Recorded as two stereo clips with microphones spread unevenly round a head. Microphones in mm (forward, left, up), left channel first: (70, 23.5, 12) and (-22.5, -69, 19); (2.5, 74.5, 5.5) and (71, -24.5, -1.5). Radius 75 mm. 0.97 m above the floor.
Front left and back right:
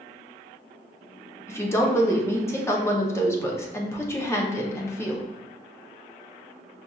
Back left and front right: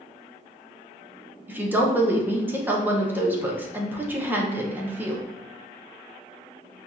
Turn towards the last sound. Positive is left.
turn(degrees=0)